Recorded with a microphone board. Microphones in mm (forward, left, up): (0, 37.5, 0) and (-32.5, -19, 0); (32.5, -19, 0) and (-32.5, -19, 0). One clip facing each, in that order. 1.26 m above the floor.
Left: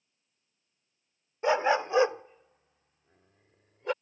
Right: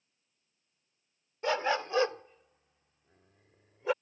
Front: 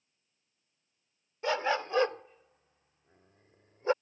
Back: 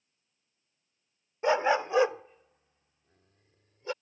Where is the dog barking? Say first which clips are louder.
Left 5 dB, back 5 dB; 120° left; by 3.9 s 35° right.